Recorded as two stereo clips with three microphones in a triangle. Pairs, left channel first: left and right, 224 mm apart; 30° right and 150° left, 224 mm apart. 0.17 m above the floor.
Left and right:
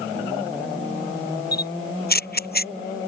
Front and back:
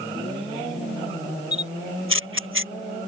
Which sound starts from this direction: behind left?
A camera shutter, at 1.5 s.